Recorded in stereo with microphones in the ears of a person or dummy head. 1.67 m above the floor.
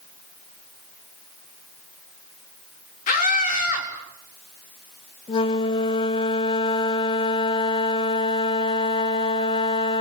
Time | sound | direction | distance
3.1 | a scream | 45° left (ahead or behind) | 5 m
5.3 | a flute | 30° left (ahead or behind) | 1.2 m